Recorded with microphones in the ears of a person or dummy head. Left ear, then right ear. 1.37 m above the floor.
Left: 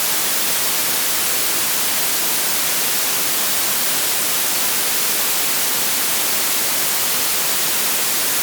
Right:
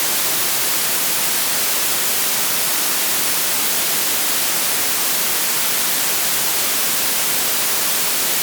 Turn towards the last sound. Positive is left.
No sound to turn to.